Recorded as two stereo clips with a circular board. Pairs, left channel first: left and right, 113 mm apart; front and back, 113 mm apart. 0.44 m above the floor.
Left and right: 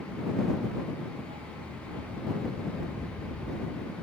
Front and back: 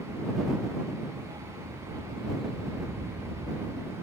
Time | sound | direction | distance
1.2 | a dog barking | 125° right | ?